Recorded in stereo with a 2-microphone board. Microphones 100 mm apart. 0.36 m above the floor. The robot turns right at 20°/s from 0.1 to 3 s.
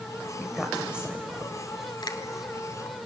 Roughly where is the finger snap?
Left.